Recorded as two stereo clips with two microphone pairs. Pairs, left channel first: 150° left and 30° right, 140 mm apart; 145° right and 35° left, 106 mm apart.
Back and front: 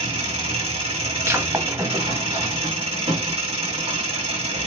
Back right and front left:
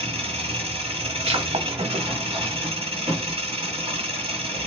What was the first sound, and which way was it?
An engine running, 20° left.